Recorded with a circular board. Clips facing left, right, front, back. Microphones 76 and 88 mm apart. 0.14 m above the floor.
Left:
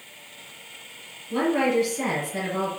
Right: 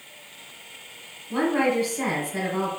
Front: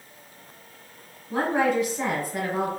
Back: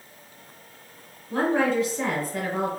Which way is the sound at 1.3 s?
75° right.